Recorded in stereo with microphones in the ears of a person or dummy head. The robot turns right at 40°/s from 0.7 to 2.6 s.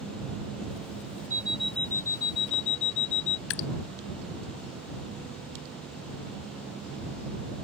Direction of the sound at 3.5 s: 65° left (ahead or behind).